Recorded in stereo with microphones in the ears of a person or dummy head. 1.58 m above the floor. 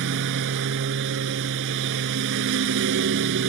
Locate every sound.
0.0 s a lawn mower: 60° right (ahead or behind)